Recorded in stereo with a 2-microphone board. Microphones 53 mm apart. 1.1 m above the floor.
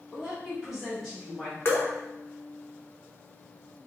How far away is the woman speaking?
About 1.8 m.